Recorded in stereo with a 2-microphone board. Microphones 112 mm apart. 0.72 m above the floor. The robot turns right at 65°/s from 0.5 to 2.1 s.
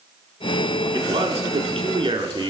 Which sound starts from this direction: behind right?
A man speaking, at 0.9 s.